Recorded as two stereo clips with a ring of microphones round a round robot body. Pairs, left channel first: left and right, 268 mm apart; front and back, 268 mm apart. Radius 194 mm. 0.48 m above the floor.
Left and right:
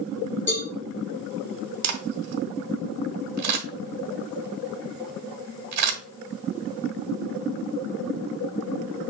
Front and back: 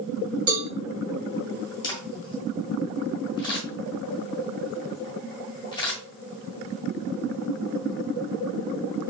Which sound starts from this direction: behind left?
A cowbell, at 0.5 s.